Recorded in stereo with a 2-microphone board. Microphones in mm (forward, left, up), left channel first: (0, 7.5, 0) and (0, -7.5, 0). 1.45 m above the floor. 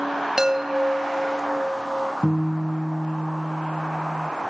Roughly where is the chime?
Right.